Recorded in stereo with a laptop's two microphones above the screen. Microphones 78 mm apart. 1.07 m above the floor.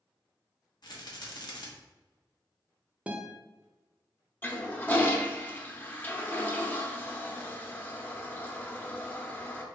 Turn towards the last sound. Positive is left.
turn(degrees=25)  # may be behind; listen again after turning